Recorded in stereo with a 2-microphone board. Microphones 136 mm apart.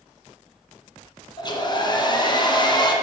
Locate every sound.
1.4 s a hair dryer: 35° left (ahead or behind), 1.6 m